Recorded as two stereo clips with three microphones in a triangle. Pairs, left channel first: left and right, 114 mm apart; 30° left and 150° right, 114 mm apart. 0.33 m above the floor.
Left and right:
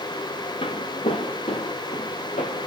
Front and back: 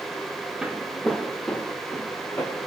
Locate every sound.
0.6 s footsteps: 130° left, 2.0 m; by 2.7 s 105° left, 5 m